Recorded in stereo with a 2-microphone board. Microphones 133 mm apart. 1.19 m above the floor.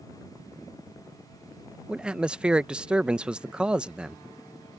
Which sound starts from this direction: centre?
A man speaking, at 1.9 s.